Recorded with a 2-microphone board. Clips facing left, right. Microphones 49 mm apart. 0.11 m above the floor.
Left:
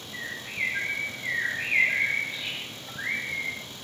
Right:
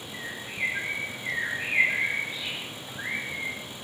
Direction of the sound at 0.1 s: 25° left (ahead or behind).